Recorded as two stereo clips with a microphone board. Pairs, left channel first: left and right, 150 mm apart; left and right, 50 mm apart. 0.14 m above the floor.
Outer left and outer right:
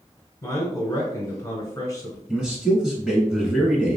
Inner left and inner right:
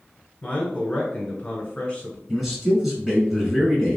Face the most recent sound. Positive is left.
turn(degrees=-5)  # may be behind; listen again after turning